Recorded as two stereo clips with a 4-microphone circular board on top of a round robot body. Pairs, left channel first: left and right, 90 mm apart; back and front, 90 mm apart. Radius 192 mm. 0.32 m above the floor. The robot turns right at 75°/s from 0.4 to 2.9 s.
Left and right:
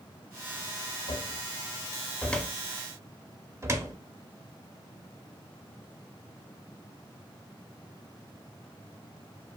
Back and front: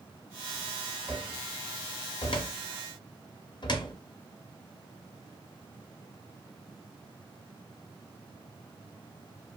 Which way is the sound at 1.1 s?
75° left.